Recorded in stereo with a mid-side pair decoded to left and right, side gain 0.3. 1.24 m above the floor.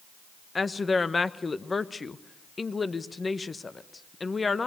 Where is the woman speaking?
40° left, 1.0 m.